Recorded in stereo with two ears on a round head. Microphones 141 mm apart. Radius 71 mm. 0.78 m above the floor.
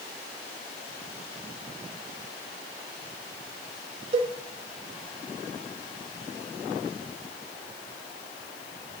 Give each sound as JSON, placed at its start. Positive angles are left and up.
{"t": 4.1, "sound": "a cowbell", "side_deg": -35, "distance_m": 0.9}